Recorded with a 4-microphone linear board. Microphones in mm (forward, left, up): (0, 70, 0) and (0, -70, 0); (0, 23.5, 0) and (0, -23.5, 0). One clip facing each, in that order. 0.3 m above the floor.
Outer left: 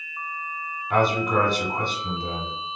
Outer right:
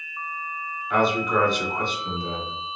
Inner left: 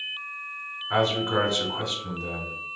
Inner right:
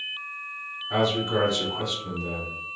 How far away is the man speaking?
About 1.3 m.